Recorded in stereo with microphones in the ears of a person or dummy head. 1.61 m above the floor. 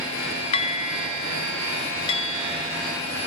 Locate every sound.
0.5 s dishes clattering: 35° left (ahead or behind)